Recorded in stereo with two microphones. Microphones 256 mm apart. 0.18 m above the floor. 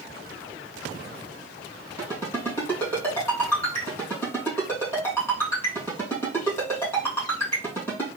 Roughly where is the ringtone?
Centre.